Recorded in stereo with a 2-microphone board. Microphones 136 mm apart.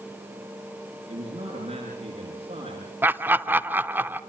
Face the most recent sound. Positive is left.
turn(degrees=-15)  # may be behind; listen again after turning